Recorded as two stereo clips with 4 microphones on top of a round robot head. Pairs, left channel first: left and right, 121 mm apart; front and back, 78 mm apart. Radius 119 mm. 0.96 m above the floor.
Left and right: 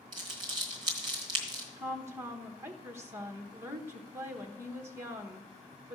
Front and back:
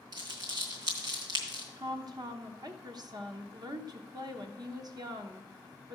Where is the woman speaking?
155° right, 1.0 m.